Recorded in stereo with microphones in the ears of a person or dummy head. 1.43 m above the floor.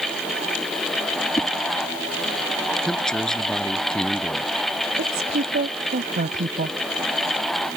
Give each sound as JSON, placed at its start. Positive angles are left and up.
{"t": 1.4, "sound": "a whoosh", "side_deg": 20}
{"t": 2.8, "sound": "a man speaking", "side_deg": 5}
{"t": 5.0, "sound": "a woman speaking", "side_deg": -50}